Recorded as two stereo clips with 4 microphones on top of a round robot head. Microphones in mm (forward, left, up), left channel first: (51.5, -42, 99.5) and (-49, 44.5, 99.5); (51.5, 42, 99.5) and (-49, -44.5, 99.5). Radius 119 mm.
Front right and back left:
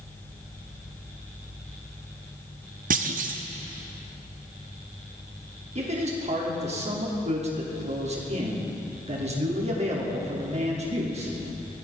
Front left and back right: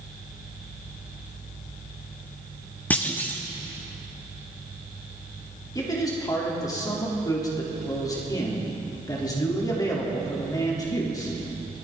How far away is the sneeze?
I don't hear a sneeze.